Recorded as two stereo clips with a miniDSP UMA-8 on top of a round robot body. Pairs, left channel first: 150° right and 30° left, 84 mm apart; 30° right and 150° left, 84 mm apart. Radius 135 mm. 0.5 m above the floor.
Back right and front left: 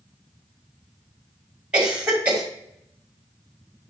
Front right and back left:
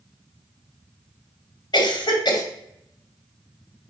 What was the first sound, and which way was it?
A cough, 45° right.